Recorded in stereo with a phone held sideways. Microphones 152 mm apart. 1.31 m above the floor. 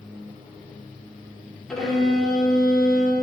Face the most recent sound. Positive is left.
turn(degrees=5)  # may be behind; listen again after turning